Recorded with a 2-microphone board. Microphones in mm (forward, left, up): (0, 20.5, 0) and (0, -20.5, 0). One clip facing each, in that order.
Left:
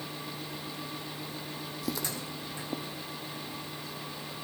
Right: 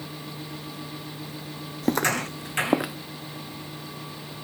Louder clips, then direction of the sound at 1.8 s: Right 13 dB; 45° right (ahead or behind).